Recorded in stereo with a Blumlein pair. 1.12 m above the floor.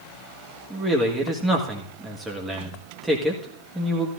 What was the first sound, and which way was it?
A man speaking, 5° right.